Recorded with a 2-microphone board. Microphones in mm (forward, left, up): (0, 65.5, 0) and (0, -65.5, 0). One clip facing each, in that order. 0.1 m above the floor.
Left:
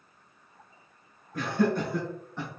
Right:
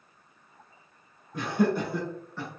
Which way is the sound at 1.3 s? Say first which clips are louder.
Right 1 dB; 25° right (ahead or behind).